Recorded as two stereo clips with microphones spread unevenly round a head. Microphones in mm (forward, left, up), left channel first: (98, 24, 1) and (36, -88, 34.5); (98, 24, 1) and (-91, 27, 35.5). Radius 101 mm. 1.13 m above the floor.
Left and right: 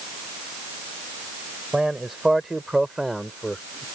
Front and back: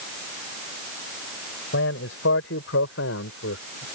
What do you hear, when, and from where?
1.7 s a man speaking: 35° right; by 3.9 s 30° right